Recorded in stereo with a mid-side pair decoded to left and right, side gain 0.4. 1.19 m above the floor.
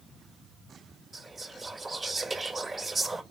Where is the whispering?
30° right, 6 m.